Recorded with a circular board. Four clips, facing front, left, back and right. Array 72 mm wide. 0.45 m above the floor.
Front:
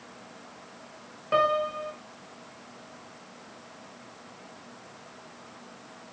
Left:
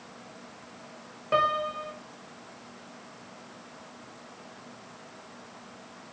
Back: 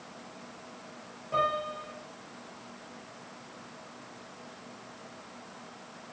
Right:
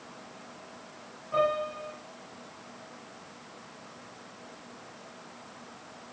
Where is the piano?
45° left, 5 m.